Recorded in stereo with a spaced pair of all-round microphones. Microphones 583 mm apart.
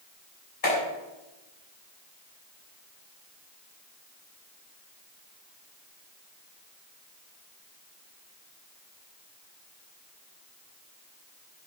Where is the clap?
85° left, 6.5 m.